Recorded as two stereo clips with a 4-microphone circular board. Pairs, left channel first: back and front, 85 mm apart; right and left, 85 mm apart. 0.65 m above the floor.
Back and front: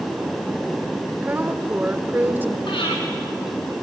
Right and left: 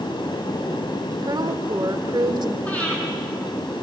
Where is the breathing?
160° right, 8 m.